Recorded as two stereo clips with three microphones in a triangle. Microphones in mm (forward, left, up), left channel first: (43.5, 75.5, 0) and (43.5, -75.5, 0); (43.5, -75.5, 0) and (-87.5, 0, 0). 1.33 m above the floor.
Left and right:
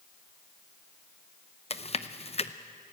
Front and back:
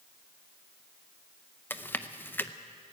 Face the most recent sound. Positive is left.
turn(degrees=45)